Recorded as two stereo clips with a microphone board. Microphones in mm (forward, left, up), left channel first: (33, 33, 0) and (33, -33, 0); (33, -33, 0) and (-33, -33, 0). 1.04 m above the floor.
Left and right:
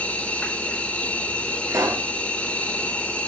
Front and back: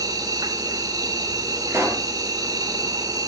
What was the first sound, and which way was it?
An insect, 160° left.